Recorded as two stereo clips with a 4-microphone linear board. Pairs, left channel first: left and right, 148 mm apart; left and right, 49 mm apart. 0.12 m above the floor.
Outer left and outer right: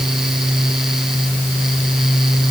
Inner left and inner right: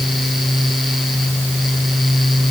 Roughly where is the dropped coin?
I don't hear a dropped coin.